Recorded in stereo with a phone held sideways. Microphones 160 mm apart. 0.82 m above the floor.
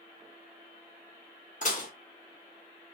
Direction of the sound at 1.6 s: 55° left (ahead or behind).